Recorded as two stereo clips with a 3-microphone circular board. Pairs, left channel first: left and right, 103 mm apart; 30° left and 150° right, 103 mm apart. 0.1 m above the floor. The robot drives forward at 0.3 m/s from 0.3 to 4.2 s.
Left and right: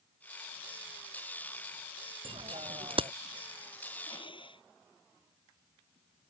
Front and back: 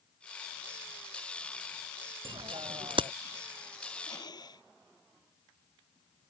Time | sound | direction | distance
2.2 | a bicycle bell | 115° right | ?
4.1 | breathing | 70° left | ?